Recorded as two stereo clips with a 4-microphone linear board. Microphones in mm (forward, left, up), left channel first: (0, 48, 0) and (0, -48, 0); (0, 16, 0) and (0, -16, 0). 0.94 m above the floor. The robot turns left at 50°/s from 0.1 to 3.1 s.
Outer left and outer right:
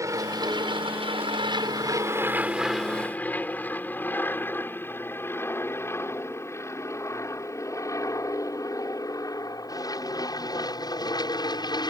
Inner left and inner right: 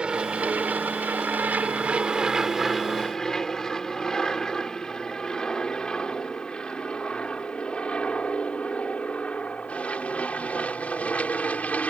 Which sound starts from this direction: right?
An aircraft, at 0.0 s.